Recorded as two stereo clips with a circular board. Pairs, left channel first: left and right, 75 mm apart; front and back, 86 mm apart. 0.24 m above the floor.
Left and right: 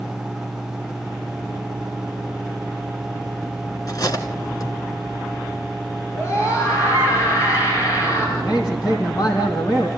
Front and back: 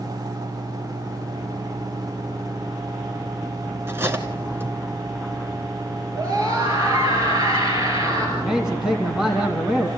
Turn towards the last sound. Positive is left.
turn(degrees=100)